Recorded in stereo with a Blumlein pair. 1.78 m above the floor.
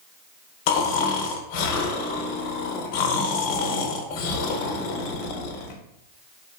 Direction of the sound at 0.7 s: 45° left.